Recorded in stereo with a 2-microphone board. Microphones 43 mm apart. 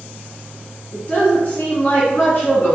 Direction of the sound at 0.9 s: 35° left (ahead or behind).